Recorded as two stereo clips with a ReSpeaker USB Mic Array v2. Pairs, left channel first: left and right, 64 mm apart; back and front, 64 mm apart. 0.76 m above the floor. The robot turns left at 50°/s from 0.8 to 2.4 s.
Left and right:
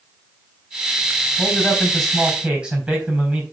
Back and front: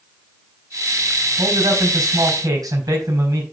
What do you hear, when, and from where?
1.4 s a man speaking: 35° left, 4 m; by 3.4 s 15° right, 4 m